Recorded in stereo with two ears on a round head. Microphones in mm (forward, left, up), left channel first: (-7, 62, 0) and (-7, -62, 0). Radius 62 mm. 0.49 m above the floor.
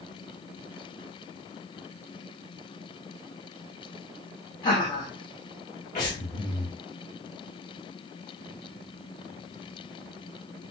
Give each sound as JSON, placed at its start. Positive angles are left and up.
{"t": 4.6, "sound": "laughter", "side_deg": 35, "distance_m": 1.2}
{"t": 6.0, "sound": "breathing", "side_deg": 55, "distance_m": 1.2}